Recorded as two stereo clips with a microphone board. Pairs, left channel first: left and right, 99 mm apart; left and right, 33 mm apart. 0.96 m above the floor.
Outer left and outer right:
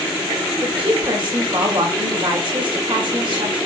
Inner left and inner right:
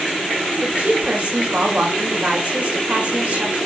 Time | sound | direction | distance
0.6 | a woman speaking | 50° right (ahead or behind) | 4.5 m